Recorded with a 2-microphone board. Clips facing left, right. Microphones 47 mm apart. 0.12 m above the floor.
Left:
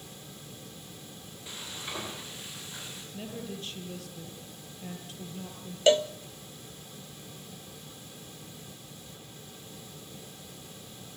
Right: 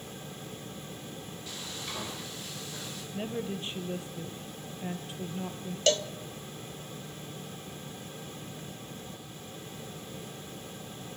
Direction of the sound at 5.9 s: 20° left (ahead or behind).